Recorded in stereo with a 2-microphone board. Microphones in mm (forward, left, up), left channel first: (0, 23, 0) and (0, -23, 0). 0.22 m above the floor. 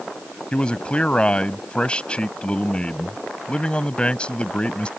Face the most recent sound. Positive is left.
turn(degrees=25)  # may be behind; listen again after turning